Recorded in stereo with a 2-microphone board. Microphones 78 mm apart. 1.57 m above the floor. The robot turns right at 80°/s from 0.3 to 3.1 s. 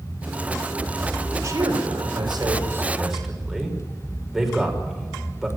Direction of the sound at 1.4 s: 40° right (ahead or behind).